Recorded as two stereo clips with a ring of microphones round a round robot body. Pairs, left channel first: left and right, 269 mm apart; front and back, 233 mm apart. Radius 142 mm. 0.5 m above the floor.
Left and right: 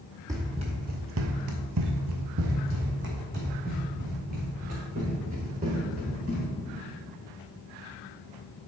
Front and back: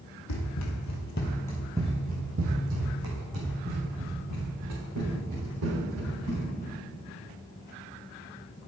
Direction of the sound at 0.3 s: 10° right.